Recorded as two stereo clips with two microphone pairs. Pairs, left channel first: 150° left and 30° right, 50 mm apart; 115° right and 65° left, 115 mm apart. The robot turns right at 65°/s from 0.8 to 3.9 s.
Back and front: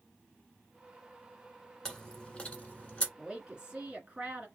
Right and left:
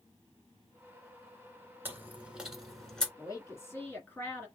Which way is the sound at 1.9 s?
95° left.